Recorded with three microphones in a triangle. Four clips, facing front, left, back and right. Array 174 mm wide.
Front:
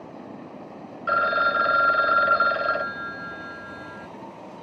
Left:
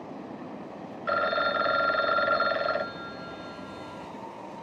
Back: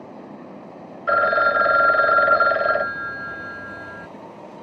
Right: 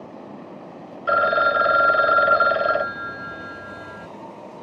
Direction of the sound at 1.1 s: 140° right.